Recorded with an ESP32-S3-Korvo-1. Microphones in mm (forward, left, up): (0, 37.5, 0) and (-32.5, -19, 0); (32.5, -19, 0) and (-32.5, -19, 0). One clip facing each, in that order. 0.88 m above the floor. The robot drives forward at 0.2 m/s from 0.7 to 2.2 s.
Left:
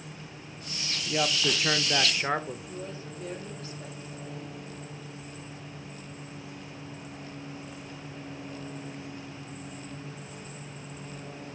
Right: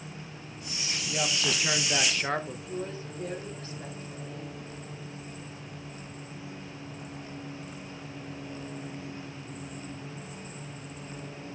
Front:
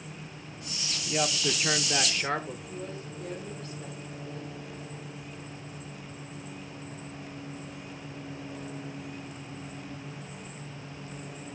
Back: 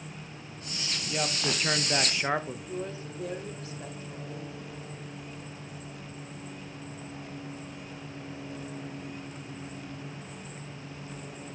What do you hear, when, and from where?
1.1 s a woman speaking: 55° left, 0.6 m; by 2.7 s 125° left, 0.6 m
2.7 s a woman speaking: 175° right, 3 m